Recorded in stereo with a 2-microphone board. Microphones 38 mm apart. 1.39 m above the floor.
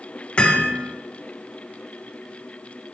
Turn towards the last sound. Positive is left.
turn(degrees=25)  # may be behind; listen again after turning